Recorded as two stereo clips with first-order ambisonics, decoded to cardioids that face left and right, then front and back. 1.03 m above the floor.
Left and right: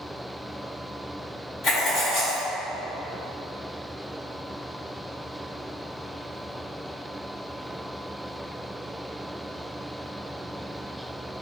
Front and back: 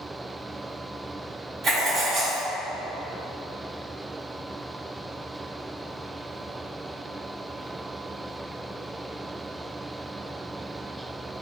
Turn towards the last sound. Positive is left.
turn(degrees=125)